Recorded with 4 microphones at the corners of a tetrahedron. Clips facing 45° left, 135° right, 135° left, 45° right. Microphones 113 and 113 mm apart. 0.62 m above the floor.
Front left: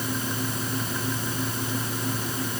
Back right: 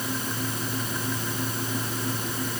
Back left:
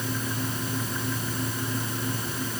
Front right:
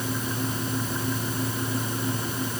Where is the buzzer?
No buzzer in this recording.